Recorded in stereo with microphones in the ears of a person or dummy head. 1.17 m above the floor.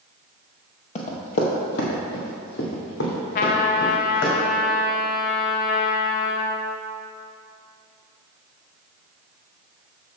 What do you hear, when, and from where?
0.9 s running footsteps: 40° left (ahead or behind), 1.6 m; by 4.3 s 65° left (ahead or behind), 3.5 m
3.4 s a trumpet: 35° left (ahead or behind), 0.6 m